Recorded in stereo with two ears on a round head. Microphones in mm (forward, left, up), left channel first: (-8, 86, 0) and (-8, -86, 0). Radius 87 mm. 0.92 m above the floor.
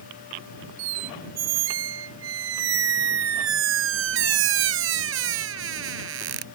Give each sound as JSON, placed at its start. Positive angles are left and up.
{"t": 0.8, "sound": "a squeak", "side_deg": -85}